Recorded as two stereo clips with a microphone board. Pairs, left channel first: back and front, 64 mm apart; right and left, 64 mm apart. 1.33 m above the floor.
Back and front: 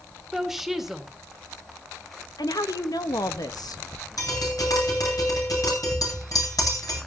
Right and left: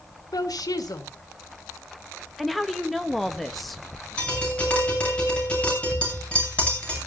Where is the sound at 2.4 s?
Straight behind, 1.4 m.